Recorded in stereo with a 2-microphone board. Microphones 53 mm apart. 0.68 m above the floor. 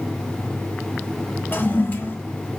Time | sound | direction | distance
1.5 | a toilet flushing | 40° left (ahead or behind) | 2 m